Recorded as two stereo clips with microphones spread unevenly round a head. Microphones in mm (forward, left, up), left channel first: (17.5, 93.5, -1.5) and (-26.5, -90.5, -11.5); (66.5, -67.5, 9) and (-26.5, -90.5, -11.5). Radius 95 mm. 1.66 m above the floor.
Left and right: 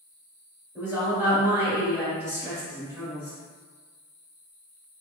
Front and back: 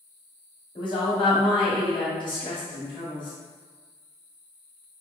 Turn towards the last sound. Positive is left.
turn(degrees=-25)